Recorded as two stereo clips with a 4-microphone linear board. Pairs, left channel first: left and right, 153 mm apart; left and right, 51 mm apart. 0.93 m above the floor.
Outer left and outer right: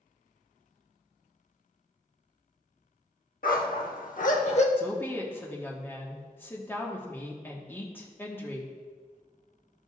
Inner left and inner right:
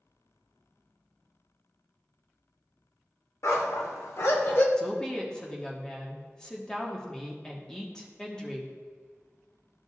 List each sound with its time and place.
3.4 s a dog barking: 65° left (ahead or behind), 1.0 m; by 4.7 s 45° left (ahead or behind), 1.0 m
4.8 s a woman speaking: 15° left (ahead or behind), 1.4 m